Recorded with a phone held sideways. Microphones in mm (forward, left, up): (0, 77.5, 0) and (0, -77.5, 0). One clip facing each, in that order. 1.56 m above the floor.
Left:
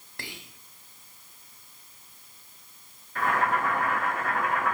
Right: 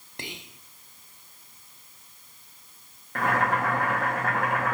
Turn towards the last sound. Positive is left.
turn(degrees=-80)